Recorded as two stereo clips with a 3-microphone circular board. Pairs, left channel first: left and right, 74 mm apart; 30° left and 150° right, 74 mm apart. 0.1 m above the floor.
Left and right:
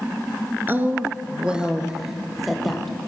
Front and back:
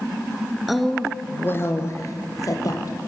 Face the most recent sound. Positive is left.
turn(degrees=0)